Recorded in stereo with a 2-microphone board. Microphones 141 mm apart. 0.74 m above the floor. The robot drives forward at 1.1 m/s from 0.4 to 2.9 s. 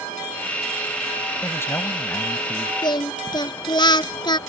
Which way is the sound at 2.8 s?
35° left (ahead or behind).